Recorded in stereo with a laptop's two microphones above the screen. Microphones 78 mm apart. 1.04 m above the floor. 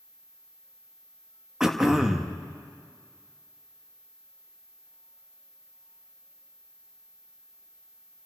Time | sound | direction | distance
1.6 | throat clearing | 5° right (ahead or behind) | 0.9 m